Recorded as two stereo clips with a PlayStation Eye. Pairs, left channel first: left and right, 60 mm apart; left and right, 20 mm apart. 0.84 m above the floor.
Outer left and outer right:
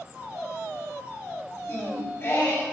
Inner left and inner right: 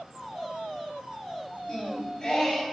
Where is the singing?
45° left (ahead or behind), 4 m.